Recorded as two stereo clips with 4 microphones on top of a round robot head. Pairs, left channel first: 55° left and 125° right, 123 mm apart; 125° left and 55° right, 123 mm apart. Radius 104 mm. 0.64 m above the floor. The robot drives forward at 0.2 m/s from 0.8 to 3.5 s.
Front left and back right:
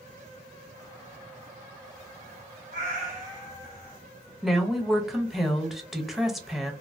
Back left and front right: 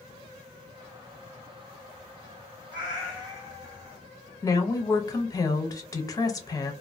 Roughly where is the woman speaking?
Behind left.